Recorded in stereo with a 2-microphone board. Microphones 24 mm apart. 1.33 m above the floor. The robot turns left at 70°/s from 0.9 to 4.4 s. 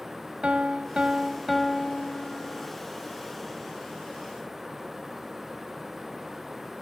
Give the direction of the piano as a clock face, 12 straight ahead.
4 o'clock.